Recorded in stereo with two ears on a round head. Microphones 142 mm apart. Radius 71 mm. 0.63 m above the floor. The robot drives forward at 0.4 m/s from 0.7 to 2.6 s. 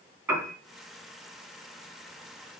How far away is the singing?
I don't hear singing.